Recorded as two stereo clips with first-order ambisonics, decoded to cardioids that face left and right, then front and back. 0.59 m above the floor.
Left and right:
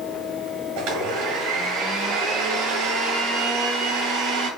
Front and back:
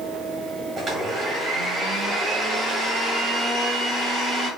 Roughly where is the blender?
Behind right.